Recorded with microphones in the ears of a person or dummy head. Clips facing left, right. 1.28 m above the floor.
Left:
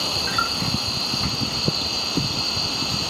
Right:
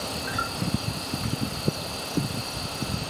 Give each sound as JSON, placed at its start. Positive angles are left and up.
{"t": 0.0, "sound": "an insect", "side_deg": 80}